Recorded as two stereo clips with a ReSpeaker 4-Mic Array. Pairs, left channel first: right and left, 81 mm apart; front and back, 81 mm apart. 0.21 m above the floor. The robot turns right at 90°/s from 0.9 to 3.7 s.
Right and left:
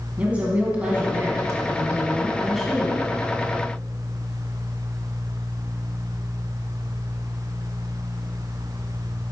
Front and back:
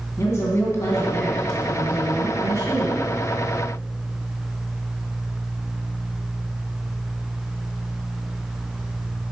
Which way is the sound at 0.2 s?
25° left.